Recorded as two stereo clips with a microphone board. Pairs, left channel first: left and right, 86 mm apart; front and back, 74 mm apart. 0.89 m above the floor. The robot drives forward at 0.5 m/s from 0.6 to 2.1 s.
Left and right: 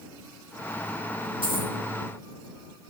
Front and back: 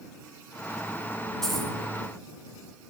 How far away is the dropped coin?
About 3 m.